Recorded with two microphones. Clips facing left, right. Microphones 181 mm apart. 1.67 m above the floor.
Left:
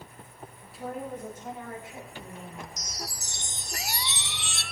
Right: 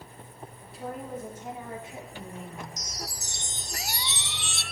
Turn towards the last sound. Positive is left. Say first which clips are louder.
# even
turn(degrees=70)  # may be behind; listen again after turning